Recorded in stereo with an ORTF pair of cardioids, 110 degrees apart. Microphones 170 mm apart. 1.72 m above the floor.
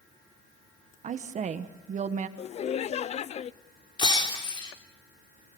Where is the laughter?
40° left, 0.6 m.